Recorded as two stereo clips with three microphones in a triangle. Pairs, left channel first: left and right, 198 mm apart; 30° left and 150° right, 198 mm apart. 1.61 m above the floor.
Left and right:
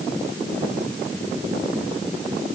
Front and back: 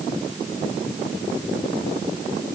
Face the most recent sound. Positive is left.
No sound to turn to.